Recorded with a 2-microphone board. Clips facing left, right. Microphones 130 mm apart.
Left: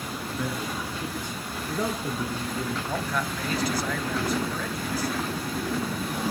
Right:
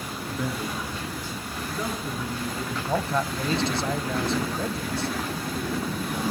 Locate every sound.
0.3 s a man speaking: 5° right (ahead or behind), 2 m; by 2.8 s 40° left (ahead or behind), 4 m
2.9 s a man speaking: 25° right (ahead or behind), 1.2 m